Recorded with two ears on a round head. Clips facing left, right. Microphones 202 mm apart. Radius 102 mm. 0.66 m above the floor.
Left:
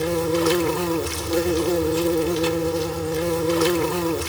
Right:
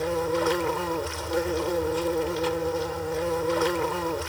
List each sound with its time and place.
0.0 s an insect: 45° left (ahead or behind)